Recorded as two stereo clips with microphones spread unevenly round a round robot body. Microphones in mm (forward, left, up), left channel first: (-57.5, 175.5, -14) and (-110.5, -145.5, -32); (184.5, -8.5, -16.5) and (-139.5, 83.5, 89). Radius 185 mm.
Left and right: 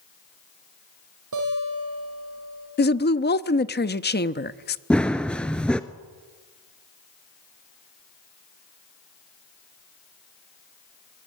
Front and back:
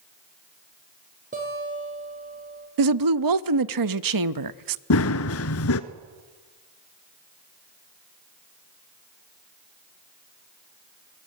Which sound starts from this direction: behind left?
A woman speaking, at 2.8 s.